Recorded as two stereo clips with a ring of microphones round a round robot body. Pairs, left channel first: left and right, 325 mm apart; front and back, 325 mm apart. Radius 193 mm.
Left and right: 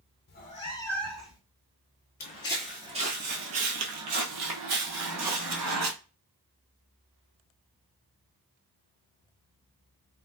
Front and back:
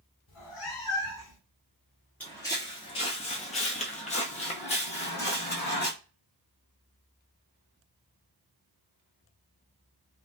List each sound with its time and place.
0.3 s a cat meowing: 40° left, 0.6 m; by 1.4 s 5° right, 0.9 m
2.2 s footsteps: 80° left, 0.5 m; by 5.9 s 70° right, 1.8 m